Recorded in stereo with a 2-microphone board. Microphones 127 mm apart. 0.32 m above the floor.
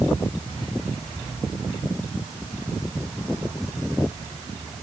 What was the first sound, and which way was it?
Only background noise.